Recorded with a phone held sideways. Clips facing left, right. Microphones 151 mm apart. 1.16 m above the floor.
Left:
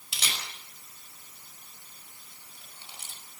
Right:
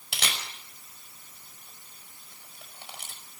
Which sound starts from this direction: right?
A camera shutter, at 0.1 s.